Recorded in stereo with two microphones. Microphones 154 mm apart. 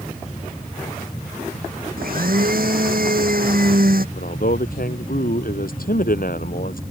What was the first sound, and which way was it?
A blender, 70° right (ahead or behind).